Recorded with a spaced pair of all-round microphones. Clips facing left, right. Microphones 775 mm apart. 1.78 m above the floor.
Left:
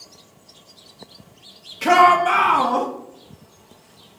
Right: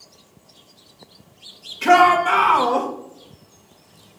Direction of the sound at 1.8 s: 20° left (ahead or behind).